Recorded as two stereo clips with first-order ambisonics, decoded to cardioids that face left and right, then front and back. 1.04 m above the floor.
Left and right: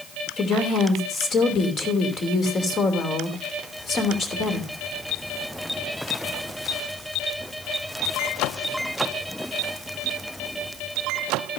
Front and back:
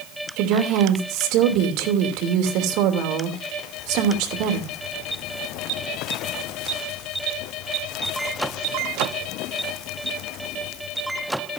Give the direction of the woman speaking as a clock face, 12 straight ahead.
7 o'clock.